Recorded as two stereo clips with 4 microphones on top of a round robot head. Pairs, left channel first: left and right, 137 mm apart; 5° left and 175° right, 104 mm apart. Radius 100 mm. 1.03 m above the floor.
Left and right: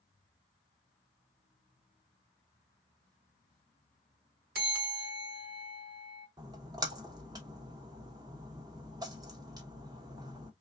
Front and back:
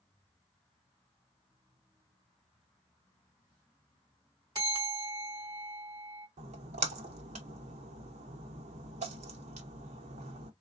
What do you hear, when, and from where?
4.5 s a bell: 110° right, 3.5 m
6.4 s a splash: 155° right, 0.8 m